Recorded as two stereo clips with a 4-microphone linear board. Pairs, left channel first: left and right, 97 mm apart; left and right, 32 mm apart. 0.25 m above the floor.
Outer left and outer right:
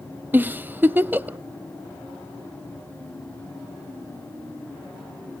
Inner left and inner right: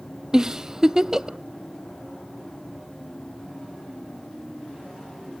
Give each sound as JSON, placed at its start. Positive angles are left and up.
{"t": 0.3, "sound": "a giggle", "side_deg": -20, "distance_m": 0.5}